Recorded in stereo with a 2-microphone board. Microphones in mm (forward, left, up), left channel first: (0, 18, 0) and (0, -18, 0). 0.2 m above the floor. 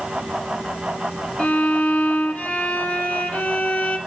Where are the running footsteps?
I don't hear running footsteps.